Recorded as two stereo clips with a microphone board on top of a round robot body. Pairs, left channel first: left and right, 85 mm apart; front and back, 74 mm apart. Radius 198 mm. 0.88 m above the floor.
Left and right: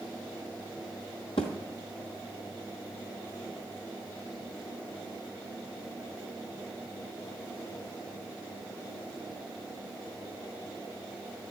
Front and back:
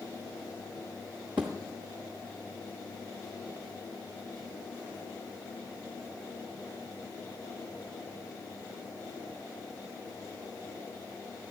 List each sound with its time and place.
1.4 s a thud: 105° left, 0.5 m